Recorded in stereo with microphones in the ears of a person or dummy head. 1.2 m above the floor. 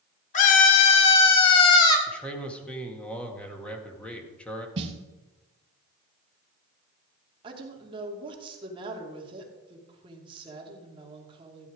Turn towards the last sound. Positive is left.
turn(degrees=-25)  # may be behind; listen again after turning